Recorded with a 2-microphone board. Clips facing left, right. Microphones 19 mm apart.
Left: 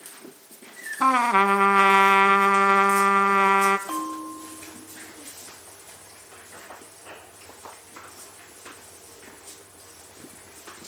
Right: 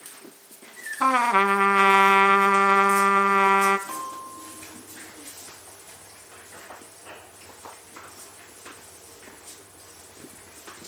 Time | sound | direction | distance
1.0 | a trumpet | 5° left (ahead or behind) | 1.1 m
3.9 | a bell | 75° left (ahead or behind) | 4 m